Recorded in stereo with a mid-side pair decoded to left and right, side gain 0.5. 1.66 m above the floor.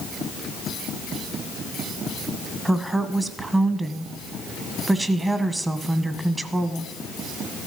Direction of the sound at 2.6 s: 20° right.